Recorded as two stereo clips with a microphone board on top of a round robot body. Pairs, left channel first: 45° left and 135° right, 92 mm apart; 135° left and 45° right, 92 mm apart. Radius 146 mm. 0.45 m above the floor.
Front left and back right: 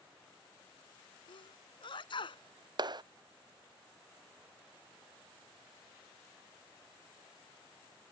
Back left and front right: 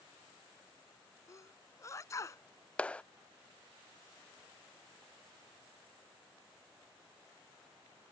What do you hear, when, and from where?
1.3 s a sneeze: 75° left
2.8 s a clap: 150° right